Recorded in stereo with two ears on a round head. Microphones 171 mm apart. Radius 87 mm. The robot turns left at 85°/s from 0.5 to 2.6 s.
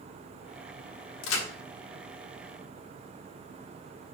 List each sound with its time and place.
1.2 s a crack: 75° left (ahead or behind), 1.7 m; by 1.5 s 80° left, 1.7 m